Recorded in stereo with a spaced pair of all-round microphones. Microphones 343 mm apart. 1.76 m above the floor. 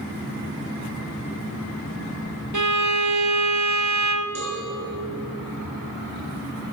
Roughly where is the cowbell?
Right.